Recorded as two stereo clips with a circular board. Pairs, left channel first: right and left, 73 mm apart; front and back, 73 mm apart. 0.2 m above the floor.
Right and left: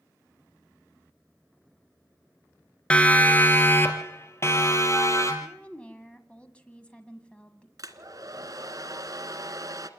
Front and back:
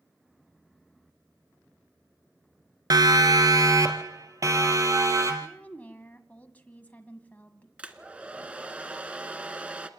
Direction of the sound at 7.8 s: 110° left.